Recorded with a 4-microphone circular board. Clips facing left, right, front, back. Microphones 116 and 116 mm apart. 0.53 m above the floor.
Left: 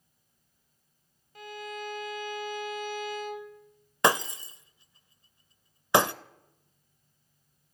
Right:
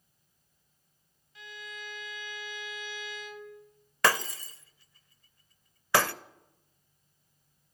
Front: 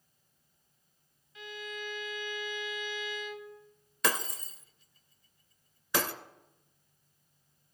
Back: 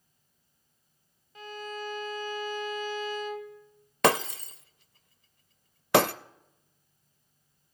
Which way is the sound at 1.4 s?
130° left.